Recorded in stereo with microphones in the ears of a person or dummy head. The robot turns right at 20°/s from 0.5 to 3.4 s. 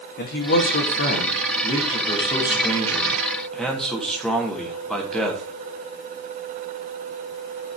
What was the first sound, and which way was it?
A man speaking, 115° left.